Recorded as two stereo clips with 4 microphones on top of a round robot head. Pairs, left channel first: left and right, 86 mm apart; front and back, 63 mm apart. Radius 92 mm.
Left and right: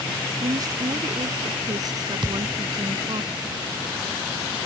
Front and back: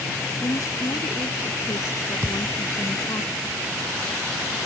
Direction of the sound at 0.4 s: 45° right.